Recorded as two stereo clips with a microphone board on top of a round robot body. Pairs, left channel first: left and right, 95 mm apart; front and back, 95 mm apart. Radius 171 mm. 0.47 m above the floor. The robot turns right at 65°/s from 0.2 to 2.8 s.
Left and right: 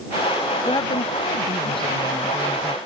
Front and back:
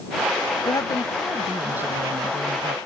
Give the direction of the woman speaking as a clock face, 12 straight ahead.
11 o'clock.